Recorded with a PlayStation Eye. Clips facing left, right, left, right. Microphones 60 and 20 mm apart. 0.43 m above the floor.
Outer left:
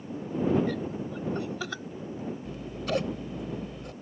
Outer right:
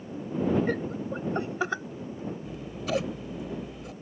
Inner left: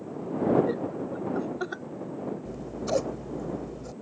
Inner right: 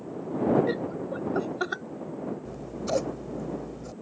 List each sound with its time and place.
0.7 s laughter: 40° right (ahead or behind); by 1.8 s 25° right (ahead or behind)
2.5 s scissors: centre (ahead or behind)